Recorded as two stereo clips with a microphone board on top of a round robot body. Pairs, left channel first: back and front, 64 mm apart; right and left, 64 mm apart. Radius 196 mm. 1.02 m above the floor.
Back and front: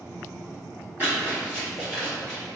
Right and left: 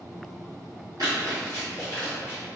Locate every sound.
1.0 s running footsteps: 65° left, 1.5 m; by 2.4 s 115° left, 1.1 m